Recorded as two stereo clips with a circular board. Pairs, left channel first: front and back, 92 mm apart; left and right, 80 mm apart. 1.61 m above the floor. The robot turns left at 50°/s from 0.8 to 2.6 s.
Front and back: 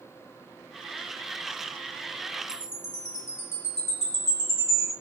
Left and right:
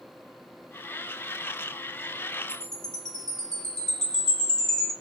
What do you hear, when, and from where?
2.5 s a chime: 25° left, 1.2 m; by 4.9 s 20° left, 1.2 m